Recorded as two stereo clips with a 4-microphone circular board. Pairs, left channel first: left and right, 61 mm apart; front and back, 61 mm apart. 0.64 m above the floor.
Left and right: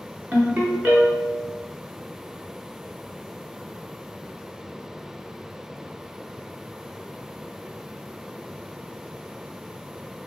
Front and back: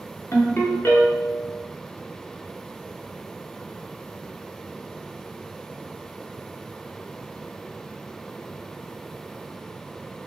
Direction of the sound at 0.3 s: 40° right.